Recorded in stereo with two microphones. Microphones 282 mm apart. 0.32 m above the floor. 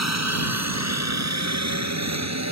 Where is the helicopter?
65° right (ahead or behind); by 2.5 s 70° right (ahead or behind).